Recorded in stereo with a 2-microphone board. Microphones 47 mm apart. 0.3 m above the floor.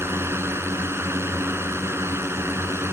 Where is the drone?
65° right (ahead or behind).